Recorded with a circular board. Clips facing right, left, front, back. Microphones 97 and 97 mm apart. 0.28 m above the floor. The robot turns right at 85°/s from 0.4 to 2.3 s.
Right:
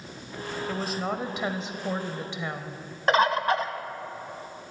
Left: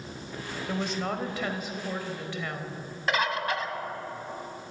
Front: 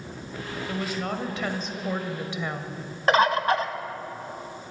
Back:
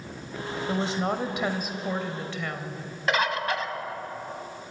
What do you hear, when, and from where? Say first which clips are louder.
0.7 s a woman speaking: even, back 3 dB; 170° left, 0.9 m; by 2.8 s 50° right, 0.9 m
3.1 s a bird: right 6 dB, front 6 dB; 45° right, 0.7 m